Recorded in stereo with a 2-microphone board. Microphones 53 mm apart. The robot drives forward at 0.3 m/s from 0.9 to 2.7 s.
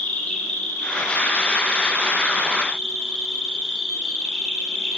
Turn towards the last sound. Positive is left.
turn(degrees=15)  # may be behind; listen again after turning